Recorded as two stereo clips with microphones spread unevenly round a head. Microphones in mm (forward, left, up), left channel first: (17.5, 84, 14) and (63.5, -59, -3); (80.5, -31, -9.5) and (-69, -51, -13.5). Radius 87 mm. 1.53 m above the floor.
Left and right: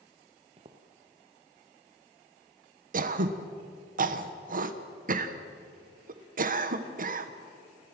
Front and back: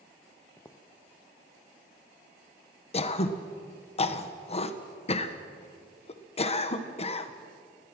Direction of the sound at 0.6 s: 50° right.